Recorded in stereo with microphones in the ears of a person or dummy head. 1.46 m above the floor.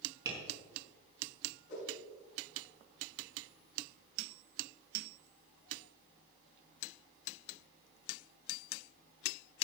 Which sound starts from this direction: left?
A whoosh, at 1.7 s.